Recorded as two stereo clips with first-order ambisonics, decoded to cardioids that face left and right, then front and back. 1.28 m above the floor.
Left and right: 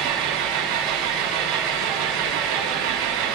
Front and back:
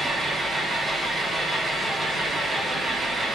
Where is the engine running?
105° right, 0.9 m.